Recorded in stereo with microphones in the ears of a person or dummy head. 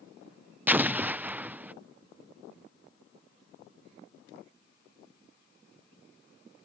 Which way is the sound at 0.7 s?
5° right (ahead or behind).